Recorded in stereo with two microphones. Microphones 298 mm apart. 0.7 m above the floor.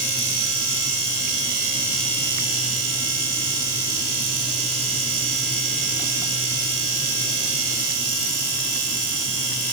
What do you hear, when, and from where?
Only background noise.